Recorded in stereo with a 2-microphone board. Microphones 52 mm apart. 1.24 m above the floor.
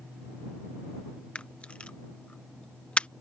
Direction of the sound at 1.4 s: 25° left (ahead or behind).